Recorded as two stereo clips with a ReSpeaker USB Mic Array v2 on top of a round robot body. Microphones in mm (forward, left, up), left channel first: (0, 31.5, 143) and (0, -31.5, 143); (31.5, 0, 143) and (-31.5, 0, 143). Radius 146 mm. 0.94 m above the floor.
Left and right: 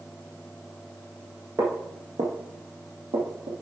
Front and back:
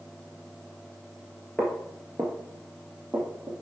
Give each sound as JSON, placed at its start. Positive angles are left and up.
{"t": 1.6, "sound": "footsteps", "azimuth_deg": -70, "distance_m": 1.0}